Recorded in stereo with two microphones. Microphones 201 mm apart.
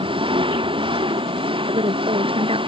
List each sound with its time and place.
0.0 s an engine running: 25° right (ahead or behind)
1.7 s a woman speaking: 30° right (ahead or behind)